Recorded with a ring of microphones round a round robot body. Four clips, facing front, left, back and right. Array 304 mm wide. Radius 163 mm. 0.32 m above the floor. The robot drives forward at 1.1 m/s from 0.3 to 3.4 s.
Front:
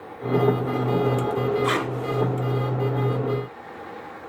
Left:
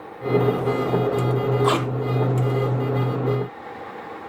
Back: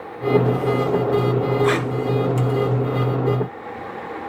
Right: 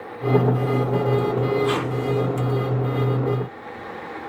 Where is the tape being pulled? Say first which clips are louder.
Left 2 dB, back 4 dB; 110° left, 0.9 m; by 1.9 s 125° left, 1.1 m.